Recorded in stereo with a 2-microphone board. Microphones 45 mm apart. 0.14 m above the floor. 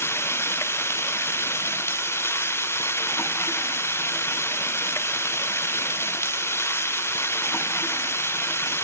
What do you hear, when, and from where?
0.0 s running water: 65° left (ahead or behind)